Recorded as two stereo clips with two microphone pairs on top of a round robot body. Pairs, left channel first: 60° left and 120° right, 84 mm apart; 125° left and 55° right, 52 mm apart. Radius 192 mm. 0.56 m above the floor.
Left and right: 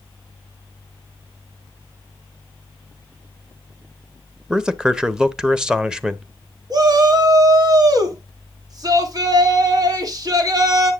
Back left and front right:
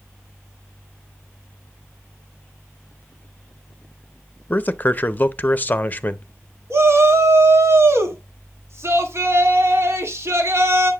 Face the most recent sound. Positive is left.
turn(degrees=-80)